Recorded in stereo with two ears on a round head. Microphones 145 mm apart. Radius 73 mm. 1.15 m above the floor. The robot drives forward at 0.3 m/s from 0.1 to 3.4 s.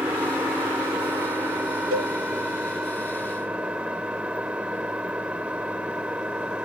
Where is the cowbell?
55° right (ahead or behind).